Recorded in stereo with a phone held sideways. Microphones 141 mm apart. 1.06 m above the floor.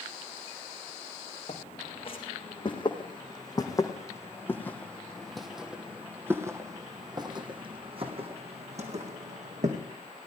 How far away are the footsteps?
About 3.5 m.